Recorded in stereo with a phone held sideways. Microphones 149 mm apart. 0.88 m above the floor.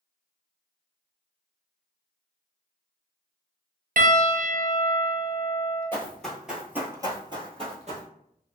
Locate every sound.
4.0 s a piano: 70° right (ahead or behind), 0.5 m
5.9 s running footsteps: 15° left (ahead or behind), 1.0 m; by 8.1 s 50° right (ahead or behind), 1.3 m